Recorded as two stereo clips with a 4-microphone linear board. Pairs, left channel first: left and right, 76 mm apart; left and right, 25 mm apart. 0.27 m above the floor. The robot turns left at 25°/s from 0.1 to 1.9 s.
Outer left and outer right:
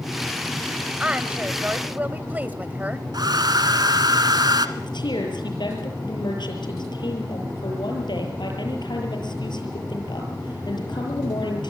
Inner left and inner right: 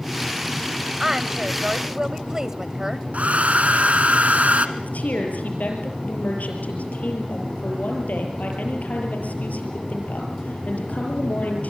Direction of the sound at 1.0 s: 15° right (ahead or behind).